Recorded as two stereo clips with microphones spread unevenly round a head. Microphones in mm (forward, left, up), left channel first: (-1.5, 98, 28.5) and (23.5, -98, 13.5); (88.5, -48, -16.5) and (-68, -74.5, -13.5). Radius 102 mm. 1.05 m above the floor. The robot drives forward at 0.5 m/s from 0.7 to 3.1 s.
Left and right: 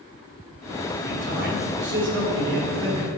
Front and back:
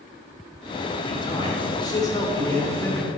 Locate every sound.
1.0 s a man speaking: 50° right, 3.5 m; by 3.1 s 65° right, 3 m